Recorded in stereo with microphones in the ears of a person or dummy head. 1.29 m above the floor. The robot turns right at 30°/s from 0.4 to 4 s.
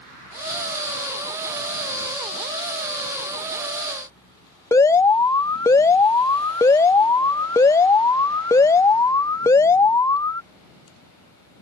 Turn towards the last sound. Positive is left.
turn(degrees=15)  # may be behind; listen again after turning